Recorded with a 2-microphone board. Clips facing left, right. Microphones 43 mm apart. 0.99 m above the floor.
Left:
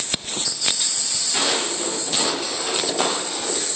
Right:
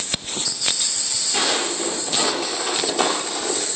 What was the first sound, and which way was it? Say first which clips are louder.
Footsteps: right 1 dB; 5° left (ahead or behind).